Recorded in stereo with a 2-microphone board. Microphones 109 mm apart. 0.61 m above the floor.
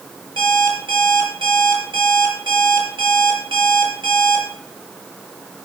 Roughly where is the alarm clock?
Right.